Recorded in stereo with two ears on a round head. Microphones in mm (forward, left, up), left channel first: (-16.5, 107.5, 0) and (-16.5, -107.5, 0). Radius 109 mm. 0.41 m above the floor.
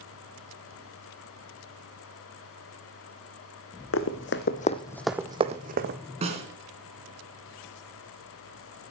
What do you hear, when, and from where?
3.9 s running footsteps: 65° left (ahead or behind), 1.1 m; by 6.0 s 45° right (ahead or behind), 1.2 m
6.2 s a snare drum: 30° right (ahead or behind), 2.5 m